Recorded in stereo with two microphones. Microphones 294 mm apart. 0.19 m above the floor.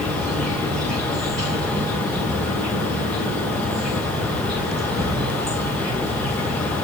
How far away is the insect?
About 8 m.